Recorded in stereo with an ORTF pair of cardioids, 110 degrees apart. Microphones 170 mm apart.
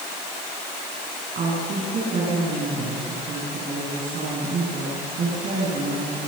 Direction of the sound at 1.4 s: 50° right.